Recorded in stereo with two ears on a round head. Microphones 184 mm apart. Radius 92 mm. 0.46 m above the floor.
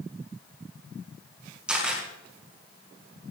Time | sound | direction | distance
1.7 | a camera shutter | 5° right (ahead or behind) | 5.5 m